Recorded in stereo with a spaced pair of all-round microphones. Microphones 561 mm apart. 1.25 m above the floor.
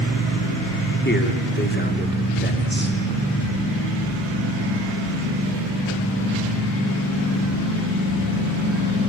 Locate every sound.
1.1 s a man speaking: 20° left (ahead or behind), 3.5 m